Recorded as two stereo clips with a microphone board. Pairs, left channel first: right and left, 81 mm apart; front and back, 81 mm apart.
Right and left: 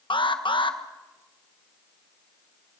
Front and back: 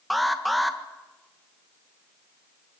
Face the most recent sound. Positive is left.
turn(degrees=-90)